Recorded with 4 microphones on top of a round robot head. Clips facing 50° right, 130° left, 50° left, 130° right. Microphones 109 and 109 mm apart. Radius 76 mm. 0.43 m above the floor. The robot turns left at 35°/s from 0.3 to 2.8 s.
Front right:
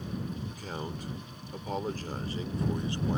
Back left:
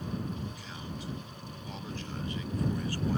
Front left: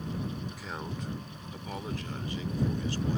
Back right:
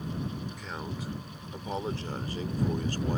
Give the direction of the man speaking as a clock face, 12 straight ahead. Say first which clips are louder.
Front right 4 dB, even; 1 o'clock.